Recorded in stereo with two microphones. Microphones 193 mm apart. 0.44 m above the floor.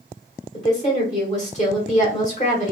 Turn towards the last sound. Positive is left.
turn(degrees=40)  # may be behind; listen again after turning